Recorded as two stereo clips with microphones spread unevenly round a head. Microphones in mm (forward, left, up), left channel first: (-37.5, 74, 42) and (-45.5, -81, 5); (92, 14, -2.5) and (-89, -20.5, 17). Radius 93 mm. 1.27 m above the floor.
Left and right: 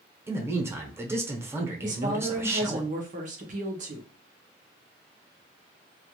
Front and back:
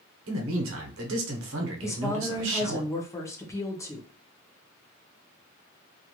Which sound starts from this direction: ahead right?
A woman speaking, at 1.8 s.